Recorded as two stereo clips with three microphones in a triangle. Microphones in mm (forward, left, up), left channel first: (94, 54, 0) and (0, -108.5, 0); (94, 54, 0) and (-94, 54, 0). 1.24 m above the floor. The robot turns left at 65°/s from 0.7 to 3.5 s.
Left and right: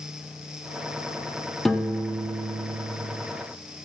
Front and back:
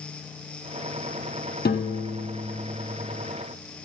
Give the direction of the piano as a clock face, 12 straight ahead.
1 o'clock.